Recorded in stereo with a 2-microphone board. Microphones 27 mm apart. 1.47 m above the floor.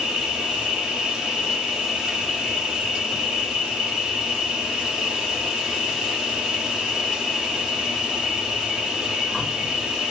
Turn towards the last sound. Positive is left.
turn(degrees=-25)  # may be behind; listen again after turning